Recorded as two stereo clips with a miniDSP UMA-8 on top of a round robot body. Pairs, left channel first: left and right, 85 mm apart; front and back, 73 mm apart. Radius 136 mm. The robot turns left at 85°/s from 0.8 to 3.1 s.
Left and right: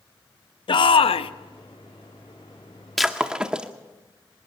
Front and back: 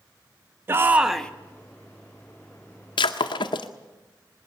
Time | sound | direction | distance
0.7 | a shout | 120° left | 0.8 m
3.0 | breaking glass | 5° left | 0.7 m